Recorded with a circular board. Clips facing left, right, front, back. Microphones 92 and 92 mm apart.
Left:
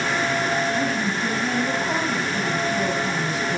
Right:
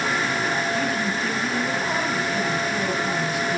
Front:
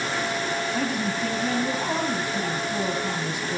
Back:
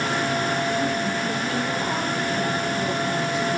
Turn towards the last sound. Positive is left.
turn(degrees=40)